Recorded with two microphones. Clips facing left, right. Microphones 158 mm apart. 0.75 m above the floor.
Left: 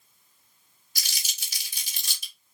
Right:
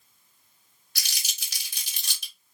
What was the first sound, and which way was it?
Crumpling, 70° right (ahead or behind).